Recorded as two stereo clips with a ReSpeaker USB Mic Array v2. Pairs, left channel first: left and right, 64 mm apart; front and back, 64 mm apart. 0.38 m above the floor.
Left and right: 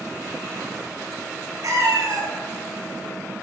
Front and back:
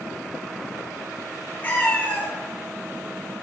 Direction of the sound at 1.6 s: 60° right.